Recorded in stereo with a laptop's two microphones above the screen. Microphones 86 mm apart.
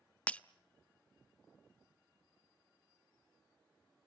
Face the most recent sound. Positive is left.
turn(degrees=15)  # may be behind; listen again after turning